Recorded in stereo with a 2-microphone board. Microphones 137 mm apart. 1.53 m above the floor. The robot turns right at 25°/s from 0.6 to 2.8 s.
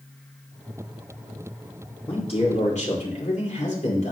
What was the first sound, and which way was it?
A man speaking, 40° left (ahead or behind).